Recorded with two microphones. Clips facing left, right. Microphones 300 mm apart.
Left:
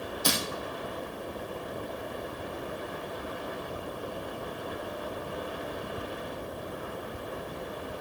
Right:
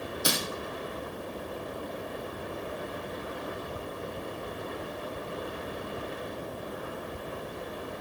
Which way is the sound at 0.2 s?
10° right (ahead or behind).